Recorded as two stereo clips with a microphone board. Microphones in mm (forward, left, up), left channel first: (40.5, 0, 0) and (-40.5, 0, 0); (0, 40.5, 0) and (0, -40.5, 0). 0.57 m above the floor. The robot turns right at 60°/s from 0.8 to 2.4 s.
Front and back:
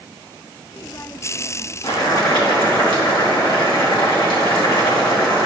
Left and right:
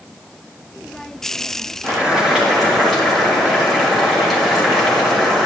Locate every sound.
1.8 s boiling: 30° right, 3.5 m; by 5.5 s 5° left, 3.5 m